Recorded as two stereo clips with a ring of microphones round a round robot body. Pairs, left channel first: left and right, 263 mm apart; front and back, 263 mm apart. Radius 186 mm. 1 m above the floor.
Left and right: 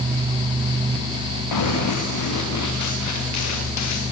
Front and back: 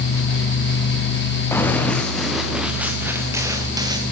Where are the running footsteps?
80° left, 5 m; by 4.0 s 105° left, 6 m.